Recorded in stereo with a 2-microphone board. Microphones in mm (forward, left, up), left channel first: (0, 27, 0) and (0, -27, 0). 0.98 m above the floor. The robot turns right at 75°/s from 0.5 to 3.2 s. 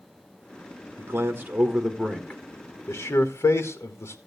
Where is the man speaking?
55° right (ahead or behind), 1.3 m; by 4.2 s 60° left (ahead or behind), 1.3 m.